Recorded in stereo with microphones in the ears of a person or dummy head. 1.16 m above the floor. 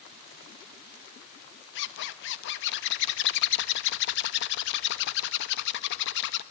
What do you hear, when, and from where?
1.8 s a zipper: 65° left (ahead or behind), 1.1 m